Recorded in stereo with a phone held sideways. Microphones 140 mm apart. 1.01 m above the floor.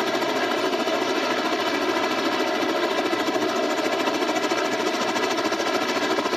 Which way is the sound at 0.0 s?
Centre (ahead or behind).